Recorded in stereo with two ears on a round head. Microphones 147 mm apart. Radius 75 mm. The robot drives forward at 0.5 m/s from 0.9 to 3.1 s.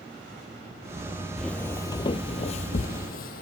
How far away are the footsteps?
About 0.5 m.